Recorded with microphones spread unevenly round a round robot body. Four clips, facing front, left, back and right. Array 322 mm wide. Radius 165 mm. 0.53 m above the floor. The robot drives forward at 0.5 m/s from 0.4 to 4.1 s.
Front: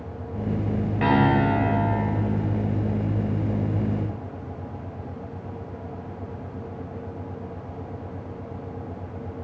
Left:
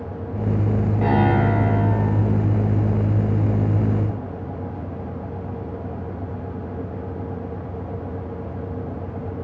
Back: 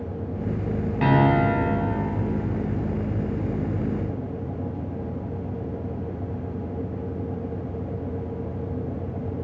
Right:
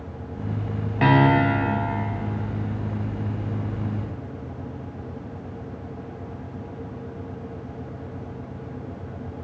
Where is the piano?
115° right, 0.9 m; by 1.7 s 140° right, 1.1 m.